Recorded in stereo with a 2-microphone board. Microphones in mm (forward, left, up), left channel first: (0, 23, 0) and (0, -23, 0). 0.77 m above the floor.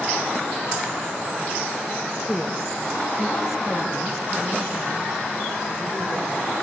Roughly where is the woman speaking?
Centre.